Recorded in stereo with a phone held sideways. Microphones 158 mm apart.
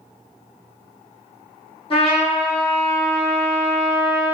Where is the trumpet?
35° left (ahead or behind), 1.3 m.